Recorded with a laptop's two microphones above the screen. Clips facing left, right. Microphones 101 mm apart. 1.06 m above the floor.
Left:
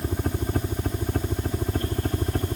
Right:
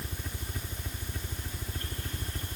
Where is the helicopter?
55° left (ahead or behind).